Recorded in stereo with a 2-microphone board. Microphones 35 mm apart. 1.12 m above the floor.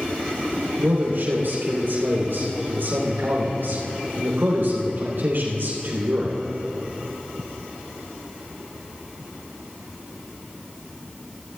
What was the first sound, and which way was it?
A man speaking, 75° right (ahead or behind).